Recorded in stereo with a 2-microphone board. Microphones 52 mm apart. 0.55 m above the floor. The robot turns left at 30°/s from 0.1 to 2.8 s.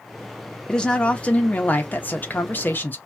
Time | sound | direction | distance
0.7 | a woman speaking | 155° left | 0.8 m